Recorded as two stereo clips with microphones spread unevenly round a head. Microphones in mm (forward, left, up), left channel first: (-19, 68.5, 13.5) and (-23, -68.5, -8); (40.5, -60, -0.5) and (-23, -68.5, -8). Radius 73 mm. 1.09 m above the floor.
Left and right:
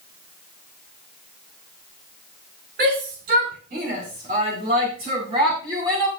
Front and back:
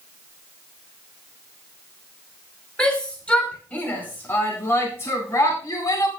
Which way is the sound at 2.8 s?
70° right.